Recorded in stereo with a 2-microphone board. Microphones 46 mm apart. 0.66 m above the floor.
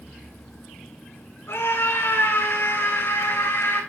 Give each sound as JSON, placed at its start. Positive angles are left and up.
{"t": 1.5, "sound": "a scream", "side_deg": 75, "distance_m": 9.0}